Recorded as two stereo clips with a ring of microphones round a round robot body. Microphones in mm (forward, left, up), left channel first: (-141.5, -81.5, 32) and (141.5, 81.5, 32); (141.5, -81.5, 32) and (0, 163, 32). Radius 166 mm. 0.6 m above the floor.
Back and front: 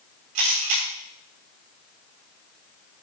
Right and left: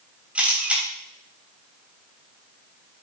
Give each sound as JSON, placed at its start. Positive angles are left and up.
{"t": 0.3, "sound": "a camera shutter", "azimuth_deg": 35, "distance_m": 3.0}